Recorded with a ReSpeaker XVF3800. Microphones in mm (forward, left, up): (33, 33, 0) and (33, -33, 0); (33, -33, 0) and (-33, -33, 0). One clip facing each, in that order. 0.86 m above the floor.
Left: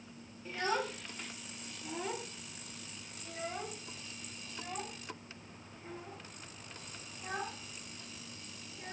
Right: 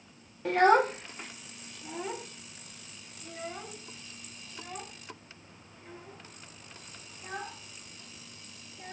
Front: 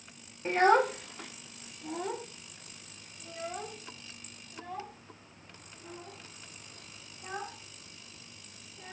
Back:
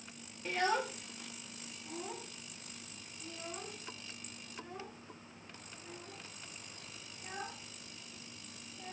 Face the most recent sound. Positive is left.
turn(degrees=10)